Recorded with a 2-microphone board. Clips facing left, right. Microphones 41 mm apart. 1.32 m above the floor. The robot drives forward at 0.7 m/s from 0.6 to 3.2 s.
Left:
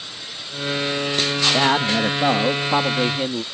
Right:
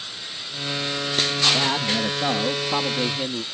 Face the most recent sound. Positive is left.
turn(degrees=20)  # may be behind; listen again after turning